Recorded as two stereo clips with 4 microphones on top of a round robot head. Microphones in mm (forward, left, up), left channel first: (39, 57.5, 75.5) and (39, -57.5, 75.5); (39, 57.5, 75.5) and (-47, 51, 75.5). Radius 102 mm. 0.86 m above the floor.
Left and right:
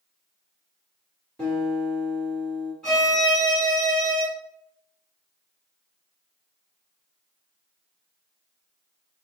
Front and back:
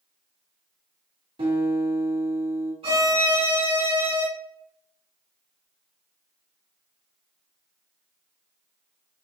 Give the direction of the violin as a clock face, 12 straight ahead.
6 o'clock.